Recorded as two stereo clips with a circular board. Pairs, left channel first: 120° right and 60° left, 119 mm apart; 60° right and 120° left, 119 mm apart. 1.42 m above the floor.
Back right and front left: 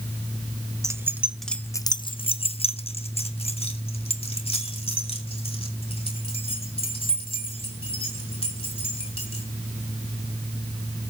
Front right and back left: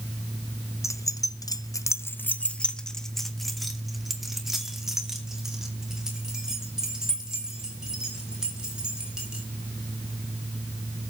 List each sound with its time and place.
0.8 s keys jangling: straight ahead, 0.8 m; by 9.4 s 155° right, 6 m